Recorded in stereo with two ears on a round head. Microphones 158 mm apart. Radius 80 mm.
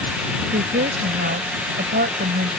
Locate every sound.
0.5 s a woman speaking: 55° right (ahead or behind)